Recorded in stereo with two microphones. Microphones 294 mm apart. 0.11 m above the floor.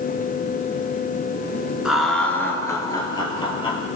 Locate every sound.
1.9 s laughter: 5° right (ahead or behind), 1.2 m; by 3.9 s 20° left (ahead or behind), 2.5 m